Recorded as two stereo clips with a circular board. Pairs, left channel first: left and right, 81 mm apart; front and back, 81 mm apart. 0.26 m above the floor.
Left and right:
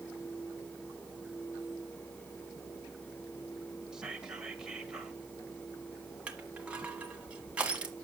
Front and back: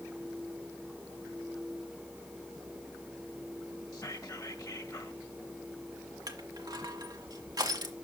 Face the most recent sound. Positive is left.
turn(degrees=-160)